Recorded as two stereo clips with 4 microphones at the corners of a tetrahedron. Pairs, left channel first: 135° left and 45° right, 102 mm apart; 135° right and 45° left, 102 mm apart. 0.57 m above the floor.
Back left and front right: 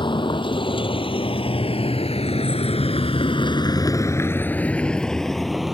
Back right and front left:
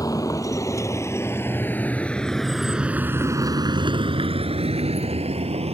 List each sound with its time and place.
0.0 s a vehicle: 170° left; by 5.8 s 45° left